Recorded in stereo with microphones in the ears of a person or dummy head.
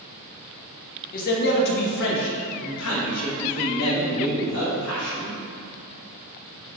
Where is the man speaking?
45° left (ahead or behind), 1.7 m; by 5.3 s 75° left (ahead or behind), 3 m.